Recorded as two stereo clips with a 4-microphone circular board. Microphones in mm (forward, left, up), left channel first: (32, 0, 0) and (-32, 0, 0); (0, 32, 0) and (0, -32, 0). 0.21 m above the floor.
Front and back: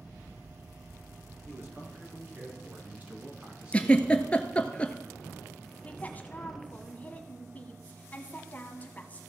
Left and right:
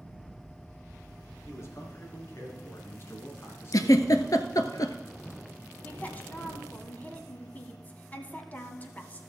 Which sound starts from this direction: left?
A giggle, at 3.7 s.